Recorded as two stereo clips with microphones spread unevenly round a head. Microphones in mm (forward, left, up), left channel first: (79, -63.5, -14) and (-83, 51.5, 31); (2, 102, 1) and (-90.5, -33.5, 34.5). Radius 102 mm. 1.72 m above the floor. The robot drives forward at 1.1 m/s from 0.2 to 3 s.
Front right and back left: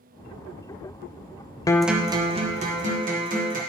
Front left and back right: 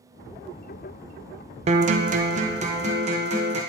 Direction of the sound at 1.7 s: 115° right.